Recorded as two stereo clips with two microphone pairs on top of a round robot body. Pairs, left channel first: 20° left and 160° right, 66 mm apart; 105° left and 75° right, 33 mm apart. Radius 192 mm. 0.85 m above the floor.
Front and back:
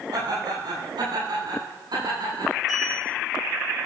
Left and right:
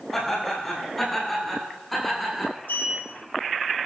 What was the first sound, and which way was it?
Laughter, 175° right.